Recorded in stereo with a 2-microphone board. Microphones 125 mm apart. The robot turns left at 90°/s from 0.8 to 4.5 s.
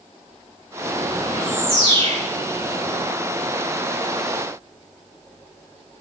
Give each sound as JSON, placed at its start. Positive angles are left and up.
{"t": 1.3, "sound": "a bird", "azimuth_deg": 15, "distance_m": 6.5}